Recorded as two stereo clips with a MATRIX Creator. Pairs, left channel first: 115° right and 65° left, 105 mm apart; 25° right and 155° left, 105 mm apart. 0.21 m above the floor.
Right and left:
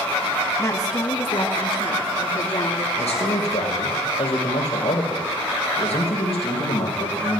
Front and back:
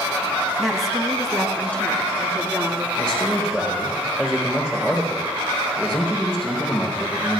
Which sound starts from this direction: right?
A man speaking, at 3.0 s.